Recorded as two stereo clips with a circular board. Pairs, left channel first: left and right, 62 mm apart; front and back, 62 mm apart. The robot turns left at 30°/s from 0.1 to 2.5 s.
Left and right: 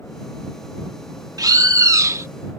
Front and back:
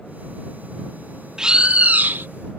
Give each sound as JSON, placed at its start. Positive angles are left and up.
{"t": 1.4, "sound": "a bird", "azimuth_deg": -100}